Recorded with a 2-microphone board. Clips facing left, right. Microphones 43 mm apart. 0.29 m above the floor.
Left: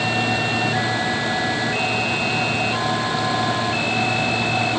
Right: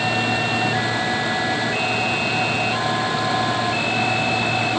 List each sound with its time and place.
Only background noise.